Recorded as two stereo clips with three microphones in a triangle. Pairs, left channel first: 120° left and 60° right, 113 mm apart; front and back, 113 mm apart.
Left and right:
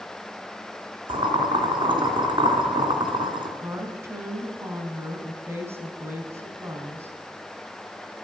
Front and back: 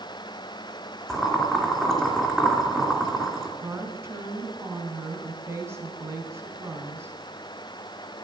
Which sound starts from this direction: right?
Boiling, at 1.1 s.